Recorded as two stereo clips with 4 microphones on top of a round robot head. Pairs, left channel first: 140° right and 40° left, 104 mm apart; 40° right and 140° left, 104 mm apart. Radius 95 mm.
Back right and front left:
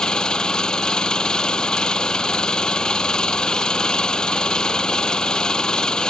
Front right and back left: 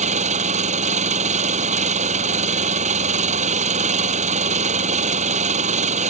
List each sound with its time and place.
0.0 s an engine running: 135° left